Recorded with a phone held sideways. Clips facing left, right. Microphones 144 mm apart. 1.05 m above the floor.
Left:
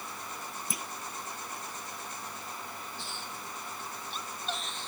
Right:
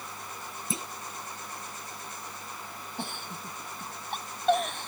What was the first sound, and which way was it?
A clunk, 25° right (ahead or behind).